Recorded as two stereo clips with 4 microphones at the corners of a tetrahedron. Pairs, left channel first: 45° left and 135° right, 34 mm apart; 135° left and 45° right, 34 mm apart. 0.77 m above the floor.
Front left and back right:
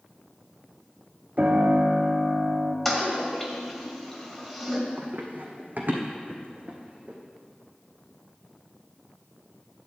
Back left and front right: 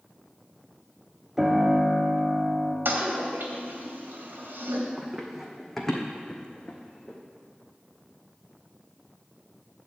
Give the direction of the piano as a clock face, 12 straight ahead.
4 o'clock.